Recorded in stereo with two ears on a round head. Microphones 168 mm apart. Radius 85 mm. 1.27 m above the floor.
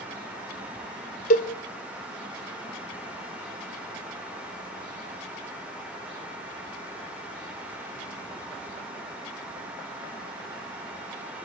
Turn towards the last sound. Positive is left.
turn(degrees=45)  # may be behind; listen again after turning